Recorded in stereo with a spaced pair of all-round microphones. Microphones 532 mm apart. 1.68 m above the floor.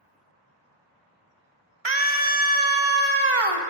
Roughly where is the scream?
Right.